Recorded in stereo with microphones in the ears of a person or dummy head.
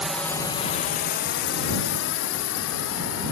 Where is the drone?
5° right (ahead or behind); by 3.3 s 80° left.